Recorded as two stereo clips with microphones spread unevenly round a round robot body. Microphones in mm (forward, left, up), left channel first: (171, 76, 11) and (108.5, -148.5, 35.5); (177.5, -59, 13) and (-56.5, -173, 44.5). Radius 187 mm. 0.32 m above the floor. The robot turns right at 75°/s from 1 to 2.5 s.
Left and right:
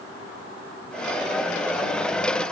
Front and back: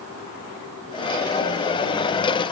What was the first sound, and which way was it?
Only background noise.